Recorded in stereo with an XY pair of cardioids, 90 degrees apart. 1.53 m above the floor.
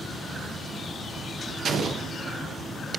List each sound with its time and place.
1.6 s an explosion: 65° right, 0.6 m